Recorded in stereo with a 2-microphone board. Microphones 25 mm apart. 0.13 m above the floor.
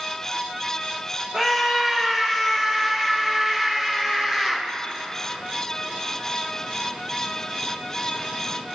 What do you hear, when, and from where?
1.3 s a scream: 30° right (ahead or behind), 4.5 m